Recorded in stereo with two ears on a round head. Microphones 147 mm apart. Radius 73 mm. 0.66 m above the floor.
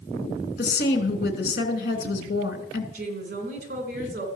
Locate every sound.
0.6 s a woman speaking: 65° left (ahead or behind), 3 m
2.9 s a woman speaking: 50° right (ahead or behind), 3 m